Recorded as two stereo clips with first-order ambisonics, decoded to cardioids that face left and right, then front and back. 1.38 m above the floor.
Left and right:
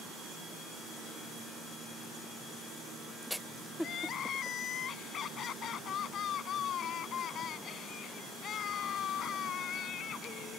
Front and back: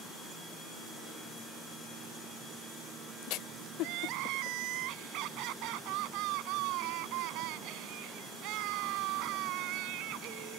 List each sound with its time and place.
3.8 s crying: 150° left